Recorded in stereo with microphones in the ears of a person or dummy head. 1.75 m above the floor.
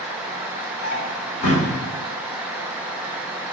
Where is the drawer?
35° left (ahead or behind), 2.5 m.